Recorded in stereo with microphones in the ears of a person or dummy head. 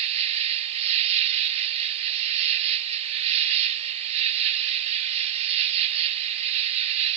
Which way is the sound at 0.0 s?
35° right (ahead or behind).